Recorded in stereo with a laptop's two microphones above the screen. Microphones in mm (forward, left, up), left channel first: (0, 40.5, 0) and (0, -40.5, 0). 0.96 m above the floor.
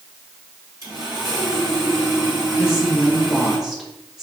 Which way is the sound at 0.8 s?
45° right (ahead or behind).